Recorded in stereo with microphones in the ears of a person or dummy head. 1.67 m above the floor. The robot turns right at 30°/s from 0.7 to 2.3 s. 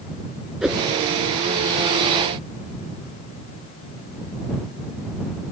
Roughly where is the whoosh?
Centre.